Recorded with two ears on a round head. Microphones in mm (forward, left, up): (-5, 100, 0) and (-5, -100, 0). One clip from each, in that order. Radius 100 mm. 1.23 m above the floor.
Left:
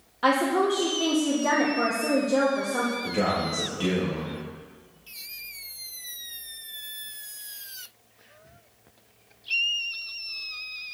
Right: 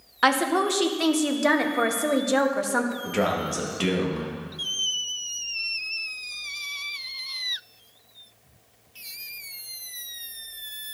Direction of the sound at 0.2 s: 60° right (ahead or behind).